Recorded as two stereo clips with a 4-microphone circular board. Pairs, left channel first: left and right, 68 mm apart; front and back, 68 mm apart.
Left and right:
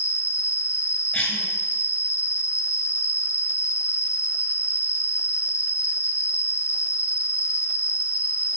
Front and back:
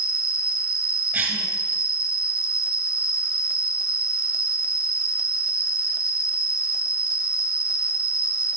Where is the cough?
145° left, 1.7 m.